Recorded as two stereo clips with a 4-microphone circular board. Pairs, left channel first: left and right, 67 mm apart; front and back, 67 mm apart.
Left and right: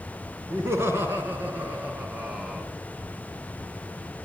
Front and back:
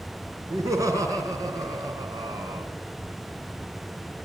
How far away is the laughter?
About 4 m.